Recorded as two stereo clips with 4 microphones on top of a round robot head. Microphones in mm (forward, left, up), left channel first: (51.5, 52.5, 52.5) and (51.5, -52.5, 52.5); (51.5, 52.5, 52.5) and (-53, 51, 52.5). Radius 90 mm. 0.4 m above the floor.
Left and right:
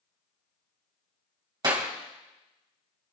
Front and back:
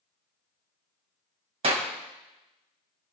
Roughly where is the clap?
Behind right.